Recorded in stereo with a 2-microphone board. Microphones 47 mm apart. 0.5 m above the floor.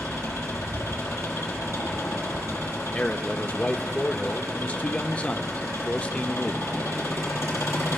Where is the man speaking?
30° left (ahead or behind), 0.9 m.